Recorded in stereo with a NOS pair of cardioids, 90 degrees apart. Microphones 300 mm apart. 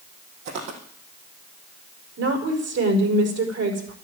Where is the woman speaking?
55° right, 5.5 m.